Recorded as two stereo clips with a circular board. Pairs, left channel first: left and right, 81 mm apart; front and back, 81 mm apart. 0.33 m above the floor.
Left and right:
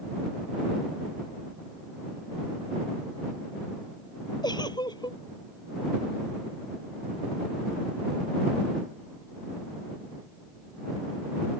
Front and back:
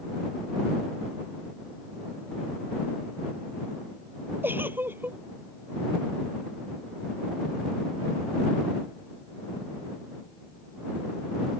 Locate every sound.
4.4 s a giggle: 115° left